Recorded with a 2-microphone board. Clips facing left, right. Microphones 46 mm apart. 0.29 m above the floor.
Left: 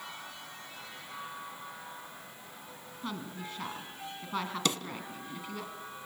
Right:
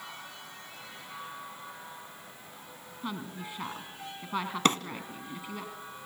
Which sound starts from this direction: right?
A drawer, at 4.7 s.